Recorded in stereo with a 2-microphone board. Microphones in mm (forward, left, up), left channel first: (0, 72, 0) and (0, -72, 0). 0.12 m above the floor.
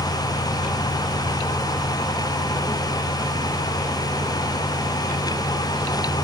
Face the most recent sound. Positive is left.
No sound to turn to.